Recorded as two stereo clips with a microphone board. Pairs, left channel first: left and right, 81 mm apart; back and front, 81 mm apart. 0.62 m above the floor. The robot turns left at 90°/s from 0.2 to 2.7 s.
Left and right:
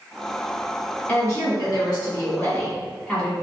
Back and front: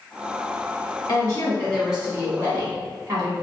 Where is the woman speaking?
155° left, 1.7 m; by 3.3 s 10° left, 1.7 m.